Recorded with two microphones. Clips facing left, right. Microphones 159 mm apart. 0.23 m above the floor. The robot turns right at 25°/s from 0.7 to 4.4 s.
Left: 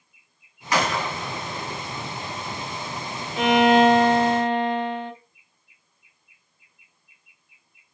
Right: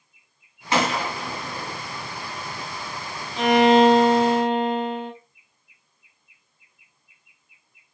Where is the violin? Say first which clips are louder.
Right 1 dB; 5° left (ahead or behind), 1.5 m; by 5.1 s 10° right (ahead or behind), 1.5 m.